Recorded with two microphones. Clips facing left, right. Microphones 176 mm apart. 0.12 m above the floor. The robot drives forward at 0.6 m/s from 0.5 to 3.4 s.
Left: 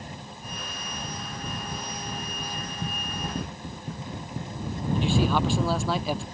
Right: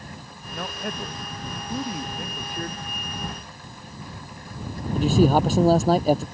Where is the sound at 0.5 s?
65° right (ahead or behind); by 2.7 s 60° right (ahead or behind).